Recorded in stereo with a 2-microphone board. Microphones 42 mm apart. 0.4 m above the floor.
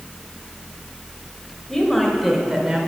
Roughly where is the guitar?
I don't hear a guitar.